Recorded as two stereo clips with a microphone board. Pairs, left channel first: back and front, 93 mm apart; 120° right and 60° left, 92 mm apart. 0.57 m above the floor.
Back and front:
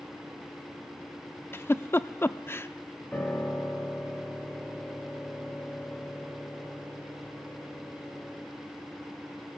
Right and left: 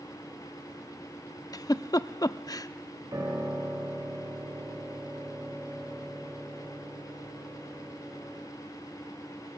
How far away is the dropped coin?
No dropped coin in this recording.